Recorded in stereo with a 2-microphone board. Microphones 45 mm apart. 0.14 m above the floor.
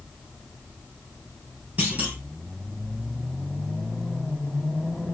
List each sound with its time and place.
1.8 s a clunk: 35° right (ahead or behind), 3 m